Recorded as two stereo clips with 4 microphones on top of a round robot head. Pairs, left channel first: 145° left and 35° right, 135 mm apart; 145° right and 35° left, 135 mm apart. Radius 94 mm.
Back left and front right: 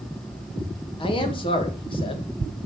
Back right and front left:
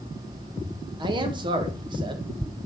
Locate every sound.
1.0 s a man speaking: 90° left, 2 m